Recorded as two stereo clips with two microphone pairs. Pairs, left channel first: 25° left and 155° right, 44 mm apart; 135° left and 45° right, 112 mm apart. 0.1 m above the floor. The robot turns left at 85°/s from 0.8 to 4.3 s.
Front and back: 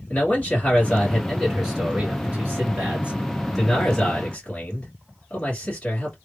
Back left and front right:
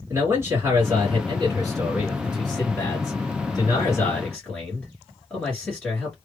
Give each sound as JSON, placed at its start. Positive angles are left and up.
{"t": 0.1, "sound": "a man speaking", "azimuth_deg": 0, "distance_m": 2.0}